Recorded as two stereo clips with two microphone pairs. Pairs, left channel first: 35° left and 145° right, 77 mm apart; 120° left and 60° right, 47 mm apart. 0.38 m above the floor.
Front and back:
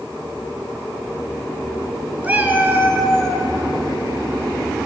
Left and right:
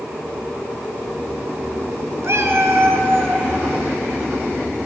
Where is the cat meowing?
75° right, 1.7 m; by 3.5 s 90° right, 3.5 m.